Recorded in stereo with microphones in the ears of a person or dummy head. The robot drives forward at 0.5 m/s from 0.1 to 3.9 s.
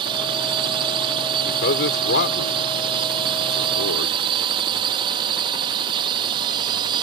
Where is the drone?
30° right (ahead or behind); by 7.0 s 25° right (ahead or behind).